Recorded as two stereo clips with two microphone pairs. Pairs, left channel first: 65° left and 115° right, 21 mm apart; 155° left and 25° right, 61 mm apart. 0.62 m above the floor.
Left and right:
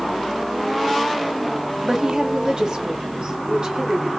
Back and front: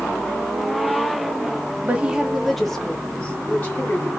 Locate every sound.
1.8 s a woman speaking: 80° right, 1.2 m; by 4.1 s 150° right, 2.5 m